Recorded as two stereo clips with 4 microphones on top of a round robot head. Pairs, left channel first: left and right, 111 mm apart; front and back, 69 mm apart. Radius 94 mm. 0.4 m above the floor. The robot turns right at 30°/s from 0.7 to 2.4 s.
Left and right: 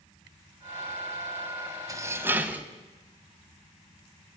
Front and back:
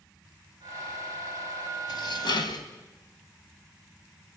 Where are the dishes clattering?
30° right, 1.8 m; by 2.6 s 15° right, 1.8 m.